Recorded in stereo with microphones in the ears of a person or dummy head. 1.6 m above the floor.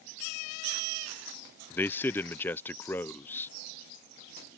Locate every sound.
1.7 s a man speaking: 15° left (ahead or behind)